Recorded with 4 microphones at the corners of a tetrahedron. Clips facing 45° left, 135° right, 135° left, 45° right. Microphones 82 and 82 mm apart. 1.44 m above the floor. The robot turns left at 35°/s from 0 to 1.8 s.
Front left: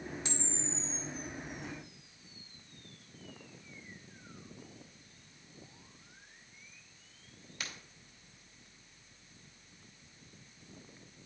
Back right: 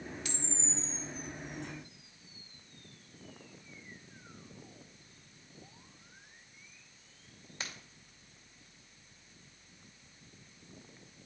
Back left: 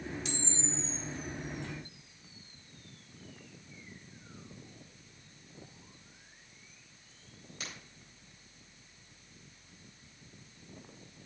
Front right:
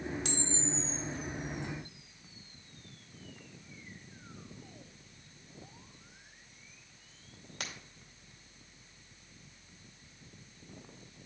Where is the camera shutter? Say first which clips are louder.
Front left 1 dB, front right 2 dB; 20° right, 2.5 m; by 7.6 s 75° right, 2.5 m.